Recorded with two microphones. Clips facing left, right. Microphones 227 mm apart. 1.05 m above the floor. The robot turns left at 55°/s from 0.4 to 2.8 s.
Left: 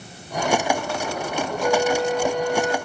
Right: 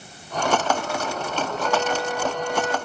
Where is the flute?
55° left, 2 m; by 2.8 s 10° right, 2 m.